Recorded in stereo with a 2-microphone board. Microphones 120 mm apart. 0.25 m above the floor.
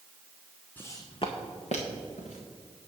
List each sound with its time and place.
0.8 s footsteps: 15° left (ahead or behind), 1.0 m; by 2.4 s 85° left, 2.5 m